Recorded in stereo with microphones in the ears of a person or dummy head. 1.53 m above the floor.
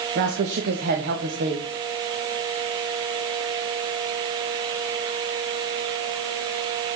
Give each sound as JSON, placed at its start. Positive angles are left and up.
{"t": 0.1, "sound": "a woman speaking", "side_deg": -60, "distance_m": 1.5}